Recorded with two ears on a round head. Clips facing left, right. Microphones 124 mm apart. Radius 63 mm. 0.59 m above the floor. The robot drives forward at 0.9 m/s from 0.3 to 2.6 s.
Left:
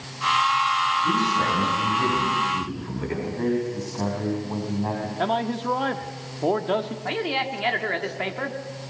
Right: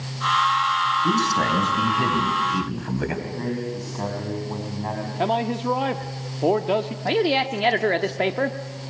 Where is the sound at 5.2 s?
15° right (ahead or behind), 0.8 m.